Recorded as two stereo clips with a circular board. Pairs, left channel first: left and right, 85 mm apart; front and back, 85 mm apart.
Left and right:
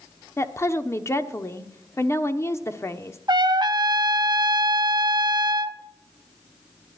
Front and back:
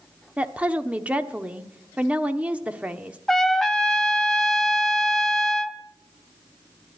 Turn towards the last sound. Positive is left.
turn(degrees=-85)